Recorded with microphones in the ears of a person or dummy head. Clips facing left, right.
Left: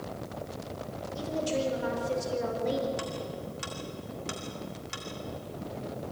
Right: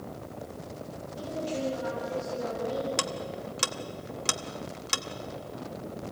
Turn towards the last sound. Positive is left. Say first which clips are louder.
# right 1 dB
turn(degrees=-80)